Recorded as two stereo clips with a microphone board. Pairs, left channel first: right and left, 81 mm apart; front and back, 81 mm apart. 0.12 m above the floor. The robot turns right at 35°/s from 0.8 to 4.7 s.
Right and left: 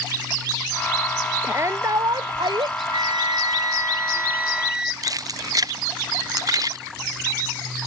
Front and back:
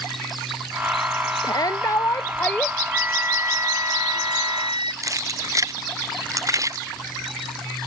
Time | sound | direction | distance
1.4 | a shout | 30° left | ?
2.9 | a flute | 105° left | ?
5.0 | keys jangling | 130° left | ?